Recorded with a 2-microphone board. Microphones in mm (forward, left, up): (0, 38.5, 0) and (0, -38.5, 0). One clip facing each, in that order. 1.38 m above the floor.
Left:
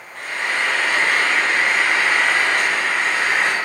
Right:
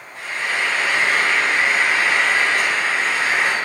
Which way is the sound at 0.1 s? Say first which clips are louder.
Left 1 dB; 65° left (ahead or behind).